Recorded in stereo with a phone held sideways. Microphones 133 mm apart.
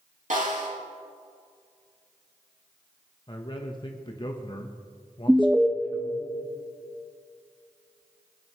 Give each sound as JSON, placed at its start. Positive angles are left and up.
{"t": 0.3, "sound": "a snare drum", "side_deg": -75, "distance_m": 4.0}
{"t": 3.3, "sound": "a man speaking", "side_deg": 35, "distance_m": 1.0}
{"t": 5.3, "sound": "an alarm", "side_deg": -5, "distance_m": 0.6}